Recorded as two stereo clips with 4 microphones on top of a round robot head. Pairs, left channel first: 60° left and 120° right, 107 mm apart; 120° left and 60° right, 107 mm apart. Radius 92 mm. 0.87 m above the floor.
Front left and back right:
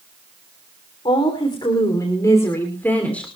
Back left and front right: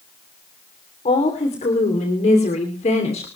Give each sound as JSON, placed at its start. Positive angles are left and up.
{"t": 1.1, "sound": "a woman speaking", "azimuth_deg": 100, "distance_m": 3.0}